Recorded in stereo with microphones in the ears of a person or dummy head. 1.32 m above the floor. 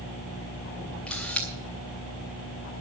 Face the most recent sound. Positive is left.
turn(degrees=5)  # may be behind; listen again after turning